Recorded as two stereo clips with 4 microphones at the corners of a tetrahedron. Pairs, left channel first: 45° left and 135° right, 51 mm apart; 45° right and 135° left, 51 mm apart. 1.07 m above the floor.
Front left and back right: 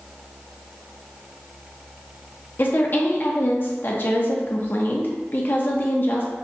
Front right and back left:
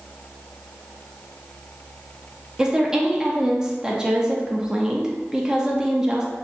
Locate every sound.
2.6 s a woman speaking: 65° left, 0.7 m